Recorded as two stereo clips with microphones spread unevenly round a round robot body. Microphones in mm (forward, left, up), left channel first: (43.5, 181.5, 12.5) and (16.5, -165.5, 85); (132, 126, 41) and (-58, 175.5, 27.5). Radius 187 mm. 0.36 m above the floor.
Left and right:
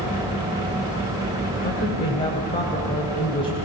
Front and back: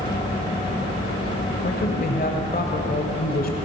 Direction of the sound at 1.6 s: 20° left.